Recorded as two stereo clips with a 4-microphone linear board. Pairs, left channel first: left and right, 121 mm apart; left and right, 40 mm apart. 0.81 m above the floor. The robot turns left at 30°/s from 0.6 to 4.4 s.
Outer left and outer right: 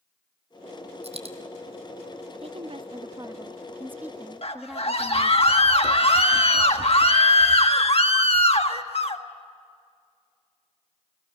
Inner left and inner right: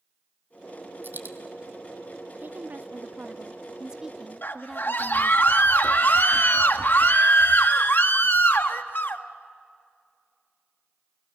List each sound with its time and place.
1.0 s a dropped coin: 60° right (ahead or behind), 1.4 m; by 1.4 s 55° right (ahead or behind), 1.4 m
2.4 s a woman speaking: 115° right, 0.7 m; by 5.4 s 175° right, 0.7 m
4.4 s a scream: 55° left (ahead or behind), 1.4 m